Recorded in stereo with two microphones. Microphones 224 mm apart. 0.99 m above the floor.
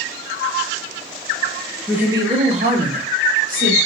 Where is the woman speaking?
5° right (ahead or behind), 0.7 m; by 3.8 s 40° right (ahead or behind), 1.2 m.